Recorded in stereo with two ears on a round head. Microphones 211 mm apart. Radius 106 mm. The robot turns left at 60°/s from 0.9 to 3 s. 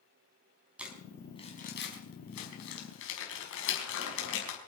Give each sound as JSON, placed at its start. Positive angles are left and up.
{"t": 0.8, "sound": "crumpling", "side_deg": -5, "distance_m": 5.0}